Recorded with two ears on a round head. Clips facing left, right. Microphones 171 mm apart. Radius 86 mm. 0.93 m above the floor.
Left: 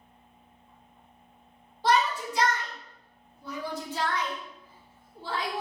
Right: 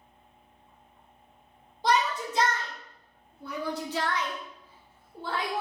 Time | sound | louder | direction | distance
1.8 | a shout | left 1 dB | 15° right (ahead or behind) | 1.5 m